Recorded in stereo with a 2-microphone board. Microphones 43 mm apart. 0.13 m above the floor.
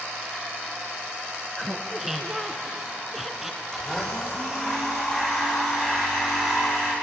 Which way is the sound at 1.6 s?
5° right (ahead or behind).